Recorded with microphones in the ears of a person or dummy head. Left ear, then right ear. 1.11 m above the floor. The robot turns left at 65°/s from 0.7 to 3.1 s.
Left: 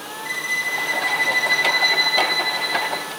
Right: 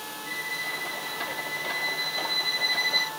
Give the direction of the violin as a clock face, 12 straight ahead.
8 o'clock.